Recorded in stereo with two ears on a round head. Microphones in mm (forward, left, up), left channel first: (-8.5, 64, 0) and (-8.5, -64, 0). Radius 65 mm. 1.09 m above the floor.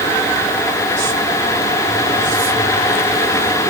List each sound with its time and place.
Only background noise.